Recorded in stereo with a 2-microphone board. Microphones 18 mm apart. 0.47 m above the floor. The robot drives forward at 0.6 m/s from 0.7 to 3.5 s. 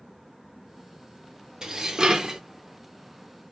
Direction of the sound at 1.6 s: 35° right (ahead or behind).